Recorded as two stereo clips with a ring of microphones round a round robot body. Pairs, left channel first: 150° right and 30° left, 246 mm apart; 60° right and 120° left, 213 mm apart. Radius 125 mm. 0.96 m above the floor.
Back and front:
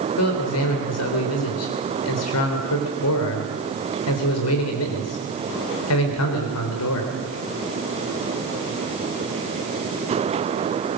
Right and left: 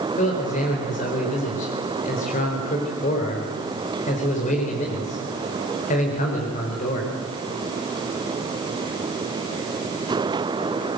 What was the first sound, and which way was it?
A man speaking, 120° right.